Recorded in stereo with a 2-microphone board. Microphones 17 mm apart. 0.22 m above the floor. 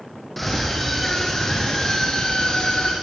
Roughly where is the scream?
Centre.